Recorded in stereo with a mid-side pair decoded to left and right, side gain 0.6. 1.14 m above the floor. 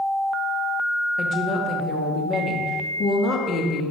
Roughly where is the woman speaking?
Ahead left.